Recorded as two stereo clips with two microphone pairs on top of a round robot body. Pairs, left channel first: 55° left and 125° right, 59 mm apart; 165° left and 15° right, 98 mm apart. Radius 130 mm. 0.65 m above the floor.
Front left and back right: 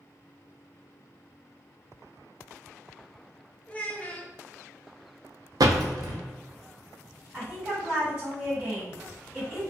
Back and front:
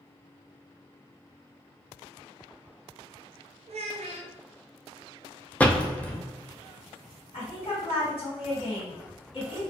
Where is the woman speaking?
160° left, 1.8 m.